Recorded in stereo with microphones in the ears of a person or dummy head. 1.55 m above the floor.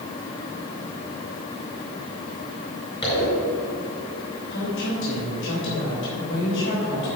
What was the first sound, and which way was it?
A zipper, 25° left (ahead or behind).